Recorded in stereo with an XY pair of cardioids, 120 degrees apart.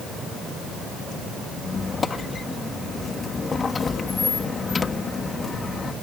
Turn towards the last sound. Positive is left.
turn(degrees=30)